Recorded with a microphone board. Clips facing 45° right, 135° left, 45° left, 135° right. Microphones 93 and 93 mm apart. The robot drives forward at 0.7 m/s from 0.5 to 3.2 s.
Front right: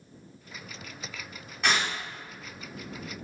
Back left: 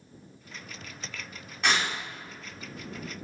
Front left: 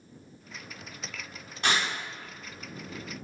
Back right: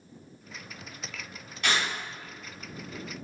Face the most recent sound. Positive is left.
turn(degrees=120)